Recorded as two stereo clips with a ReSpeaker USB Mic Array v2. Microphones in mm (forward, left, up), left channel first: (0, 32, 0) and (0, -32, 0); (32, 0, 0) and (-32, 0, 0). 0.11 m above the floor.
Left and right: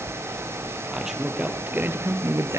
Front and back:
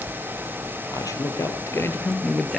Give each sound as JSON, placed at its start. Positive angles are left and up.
{"t": 0.9, "sound": "a man speaking", "azimuth_deg": -5, "distance_m": 2.5}